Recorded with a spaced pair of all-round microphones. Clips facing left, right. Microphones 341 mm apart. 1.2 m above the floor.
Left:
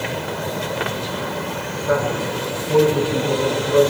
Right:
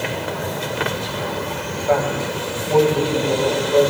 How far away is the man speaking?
About 1.5 m.